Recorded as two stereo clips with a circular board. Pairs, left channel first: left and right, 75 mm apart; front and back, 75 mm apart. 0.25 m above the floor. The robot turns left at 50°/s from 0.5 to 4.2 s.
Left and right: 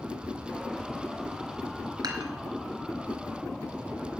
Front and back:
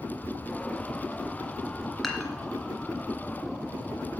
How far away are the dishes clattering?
About 2.0 m.